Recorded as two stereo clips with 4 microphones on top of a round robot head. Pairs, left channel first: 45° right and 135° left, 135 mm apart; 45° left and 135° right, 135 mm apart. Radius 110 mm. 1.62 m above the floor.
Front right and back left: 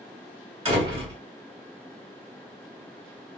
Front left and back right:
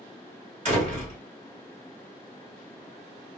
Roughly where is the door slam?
Behind.